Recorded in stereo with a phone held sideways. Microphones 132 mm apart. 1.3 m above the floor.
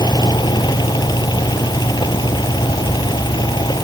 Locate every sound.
0.0 s a fan: 35° left (ahead or behind)